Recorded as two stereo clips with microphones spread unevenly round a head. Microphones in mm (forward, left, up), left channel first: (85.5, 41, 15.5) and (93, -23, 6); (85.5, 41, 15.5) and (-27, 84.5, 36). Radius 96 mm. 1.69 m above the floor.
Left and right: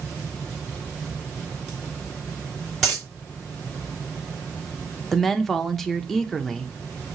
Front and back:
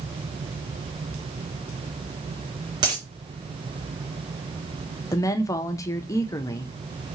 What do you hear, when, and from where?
2.8 s a dropped coin: 170° left, 2 m
5.1 s a woman speaking: 30° left, 0.6 m